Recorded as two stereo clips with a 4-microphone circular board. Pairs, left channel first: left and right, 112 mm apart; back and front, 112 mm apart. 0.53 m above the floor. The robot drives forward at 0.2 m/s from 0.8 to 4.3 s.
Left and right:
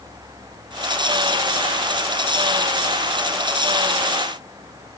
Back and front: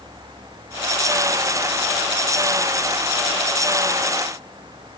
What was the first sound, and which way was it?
Only background noise.